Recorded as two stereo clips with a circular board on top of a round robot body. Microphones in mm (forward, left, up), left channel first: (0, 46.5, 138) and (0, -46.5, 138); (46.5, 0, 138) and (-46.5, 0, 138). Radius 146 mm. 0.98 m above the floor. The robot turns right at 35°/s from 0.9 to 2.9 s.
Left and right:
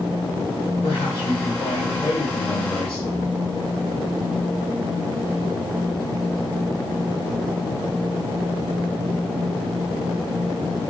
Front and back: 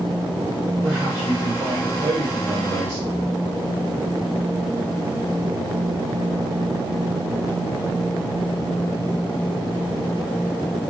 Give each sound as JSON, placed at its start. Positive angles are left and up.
{"t": 0.8, "sound": "a man speaking", "azimuth_deg": 105, "distance_m": 2.5}